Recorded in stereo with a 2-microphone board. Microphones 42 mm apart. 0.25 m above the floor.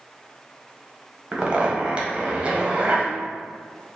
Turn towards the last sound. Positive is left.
turn(degrees=-25)  # may be behind; listen again after turning